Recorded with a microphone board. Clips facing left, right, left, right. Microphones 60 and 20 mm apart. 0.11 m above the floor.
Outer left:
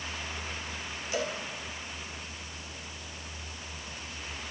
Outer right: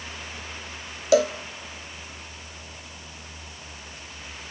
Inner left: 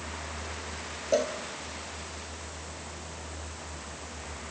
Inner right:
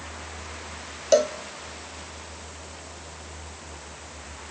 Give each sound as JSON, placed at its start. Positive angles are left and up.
{"t": 1.1, "sound": "a cowbell", "side_deg": -80, "distance_m": 1.3}